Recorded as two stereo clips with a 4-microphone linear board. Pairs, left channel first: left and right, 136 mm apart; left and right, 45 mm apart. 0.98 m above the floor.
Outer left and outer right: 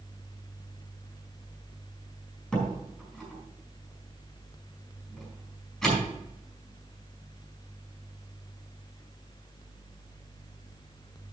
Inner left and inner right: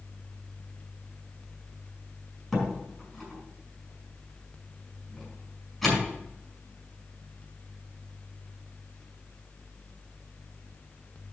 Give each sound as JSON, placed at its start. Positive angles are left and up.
{"t": 2.5, "sound": "a door slam", "side_deg": 5, "distance_m": 4.5}